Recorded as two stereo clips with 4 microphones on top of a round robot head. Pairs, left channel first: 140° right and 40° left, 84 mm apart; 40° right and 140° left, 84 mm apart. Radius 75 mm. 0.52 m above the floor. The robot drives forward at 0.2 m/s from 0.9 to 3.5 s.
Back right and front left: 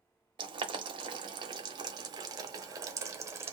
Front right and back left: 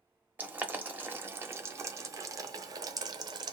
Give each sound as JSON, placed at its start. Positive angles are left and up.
{"t": 0.4, "sound": "boiling", "azimuth_deg": 70, "distance_m": 1.0}